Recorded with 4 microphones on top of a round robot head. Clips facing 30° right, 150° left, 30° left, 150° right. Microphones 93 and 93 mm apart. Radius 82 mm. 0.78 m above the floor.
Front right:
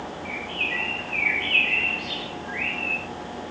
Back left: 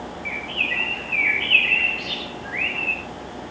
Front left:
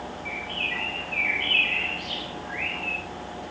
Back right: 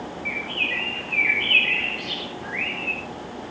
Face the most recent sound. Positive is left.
turn(degrees=180)